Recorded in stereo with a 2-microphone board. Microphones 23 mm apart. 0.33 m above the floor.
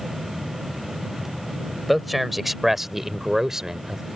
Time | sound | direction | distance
1.9 | a man speaking | centre (ahead or behind) | ?